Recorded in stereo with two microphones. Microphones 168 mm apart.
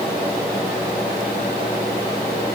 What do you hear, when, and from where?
Only background noise.